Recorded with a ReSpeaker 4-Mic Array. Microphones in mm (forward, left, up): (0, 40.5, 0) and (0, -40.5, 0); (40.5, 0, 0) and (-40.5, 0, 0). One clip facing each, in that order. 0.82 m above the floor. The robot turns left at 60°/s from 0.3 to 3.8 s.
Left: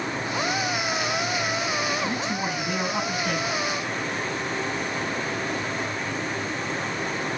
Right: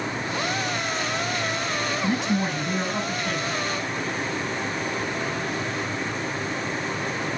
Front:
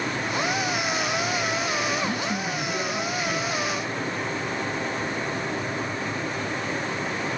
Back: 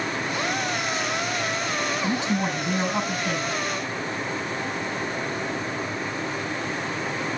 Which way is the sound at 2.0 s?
105° right.